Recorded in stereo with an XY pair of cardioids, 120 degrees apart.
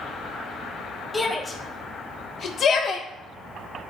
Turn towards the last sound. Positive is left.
turn(degrees=65)